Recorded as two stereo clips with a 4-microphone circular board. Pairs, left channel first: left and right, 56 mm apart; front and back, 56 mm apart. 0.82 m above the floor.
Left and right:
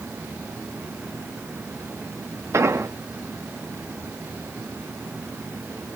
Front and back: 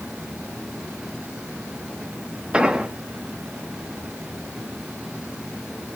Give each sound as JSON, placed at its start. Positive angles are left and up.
{"t": 2.5, "sound": "an explosion", "azimuth_deg": -110, "distance_m": 1.0}